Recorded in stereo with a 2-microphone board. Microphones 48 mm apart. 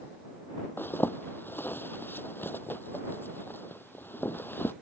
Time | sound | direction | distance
0.8 | a zipper | 50° left (ahead or behind) | ?